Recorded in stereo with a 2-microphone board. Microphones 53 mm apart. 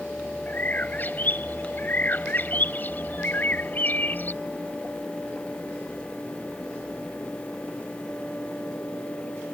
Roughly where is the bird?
Left.